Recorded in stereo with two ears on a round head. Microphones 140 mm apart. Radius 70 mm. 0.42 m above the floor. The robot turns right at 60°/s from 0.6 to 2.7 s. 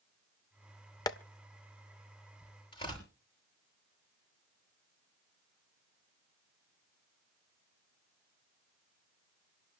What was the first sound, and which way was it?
Tapping, 25° left (ahead or behind).